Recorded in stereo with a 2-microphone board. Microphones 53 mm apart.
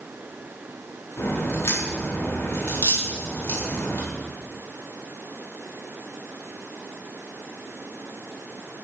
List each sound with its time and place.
1.2 s a crack: 55° left (ahead or behind), 3.5 m